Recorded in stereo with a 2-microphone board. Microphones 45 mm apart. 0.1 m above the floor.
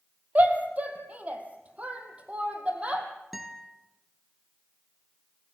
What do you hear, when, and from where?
0.3 s a shout: 35° right (ahead or behind), 3 m; by 3.1 s 25° right (ahead or behind), 4 m
3.3 s a guitar: 5° right (ahead or behind), 2 m